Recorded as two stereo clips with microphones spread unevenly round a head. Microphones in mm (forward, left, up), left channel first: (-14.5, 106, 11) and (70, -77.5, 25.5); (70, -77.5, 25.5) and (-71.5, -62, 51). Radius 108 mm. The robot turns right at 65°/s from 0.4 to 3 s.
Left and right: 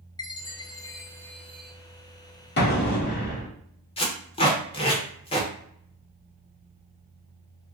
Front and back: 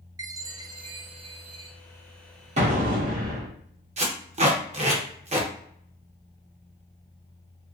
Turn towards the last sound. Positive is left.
turn(degrees=180)